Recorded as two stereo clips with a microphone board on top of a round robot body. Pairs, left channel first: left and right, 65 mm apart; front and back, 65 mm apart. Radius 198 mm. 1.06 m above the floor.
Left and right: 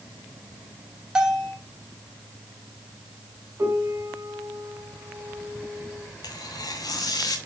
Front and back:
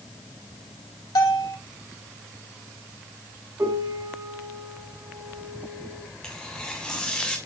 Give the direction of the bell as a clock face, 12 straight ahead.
12 o'clock.